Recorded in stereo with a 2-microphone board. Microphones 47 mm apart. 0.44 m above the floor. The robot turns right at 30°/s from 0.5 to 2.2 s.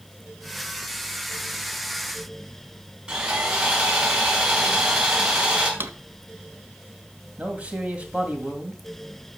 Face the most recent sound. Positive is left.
turn(degrees=-30)  # may be behind; listen again after turning